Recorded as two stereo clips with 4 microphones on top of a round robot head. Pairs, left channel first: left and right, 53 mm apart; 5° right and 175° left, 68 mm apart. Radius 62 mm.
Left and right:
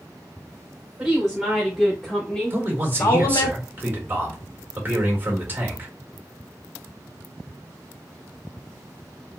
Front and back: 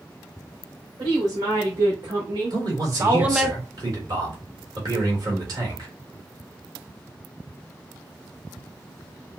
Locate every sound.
1.0 s a woman speaking: 175° right, 1.9 m; by 3.5 s 90° left, 0.7 m
2.5 s a man speaking: 140° right, 2.0 m